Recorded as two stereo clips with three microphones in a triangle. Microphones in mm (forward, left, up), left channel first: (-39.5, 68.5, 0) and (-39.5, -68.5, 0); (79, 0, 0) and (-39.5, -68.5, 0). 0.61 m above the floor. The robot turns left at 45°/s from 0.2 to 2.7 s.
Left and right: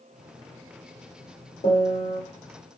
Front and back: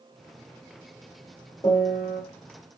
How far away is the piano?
About 1.7 m.